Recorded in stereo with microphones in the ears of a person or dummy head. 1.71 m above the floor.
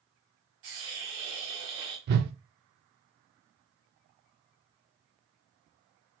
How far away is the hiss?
About 1.4 m.